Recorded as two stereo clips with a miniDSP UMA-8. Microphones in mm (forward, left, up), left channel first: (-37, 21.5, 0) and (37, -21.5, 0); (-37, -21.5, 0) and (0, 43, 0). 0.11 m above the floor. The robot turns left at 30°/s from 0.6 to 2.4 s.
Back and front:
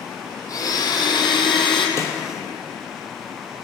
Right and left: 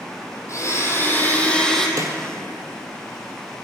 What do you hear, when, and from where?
0.5 s a blender: 165° right, 1.4 m; by 1.9 s 155° left, 1.4 m
2.0 s a snare drum: 100° left, 1.1 m; by 2.1 s 95° left, 1.1 m